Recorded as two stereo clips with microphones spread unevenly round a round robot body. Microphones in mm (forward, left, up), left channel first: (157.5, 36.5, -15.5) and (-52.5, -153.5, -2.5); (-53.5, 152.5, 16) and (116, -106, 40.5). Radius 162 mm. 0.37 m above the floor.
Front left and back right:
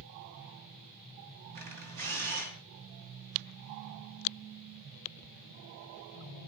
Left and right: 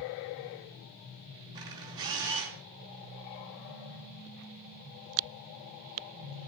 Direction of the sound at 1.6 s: 135° right.